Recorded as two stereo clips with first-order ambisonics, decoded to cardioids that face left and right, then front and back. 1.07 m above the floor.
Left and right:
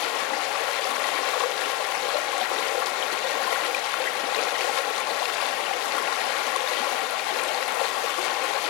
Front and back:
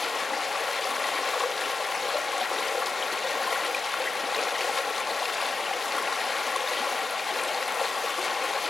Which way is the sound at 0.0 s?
75° left.